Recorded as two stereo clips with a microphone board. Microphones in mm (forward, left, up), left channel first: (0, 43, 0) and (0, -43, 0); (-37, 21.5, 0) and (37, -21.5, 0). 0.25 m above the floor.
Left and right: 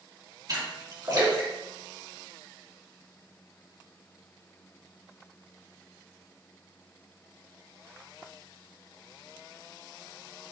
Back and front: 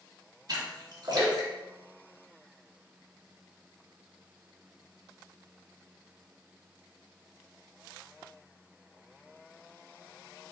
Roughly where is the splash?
Ahead right.